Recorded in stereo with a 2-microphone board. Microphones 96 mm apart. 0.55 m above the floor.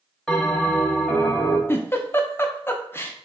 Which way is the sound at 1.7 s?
25° left (ahead or behind).